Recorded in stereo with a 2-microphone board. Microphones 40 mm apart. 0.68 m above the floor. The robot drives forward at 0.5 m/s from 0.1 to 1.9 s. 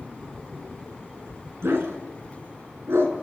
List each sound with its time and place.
1.6 s a dog barking: 80° right, 3 m; by 3.1 s 85° right, 3 m